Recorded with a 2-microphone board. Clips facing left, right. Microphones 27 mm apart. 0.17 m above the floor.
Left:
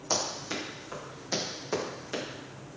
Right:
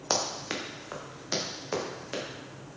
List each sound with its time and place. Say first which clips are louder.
0.1 s running footsteps: right 1 dB; 45° right (ahead or behind), 3 m; by 2.2 s 15° right (ahead or behind), 4.5 m